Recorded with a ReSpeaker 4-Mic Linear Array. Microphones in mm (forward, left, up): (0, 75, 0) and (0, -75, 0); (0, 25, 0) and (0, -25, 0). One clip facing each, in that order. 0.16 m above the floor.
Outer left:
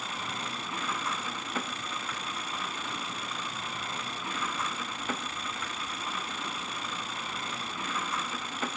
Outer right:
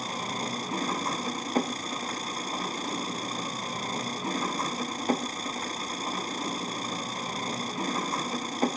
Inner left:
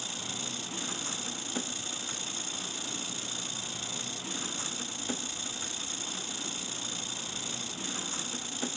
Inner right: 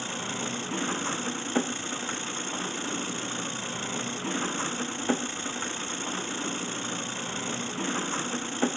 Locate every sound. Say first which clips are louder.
0.0 s an engine running: outer right 5 dB, inner right 7 dB; 35° right (ahead or behind)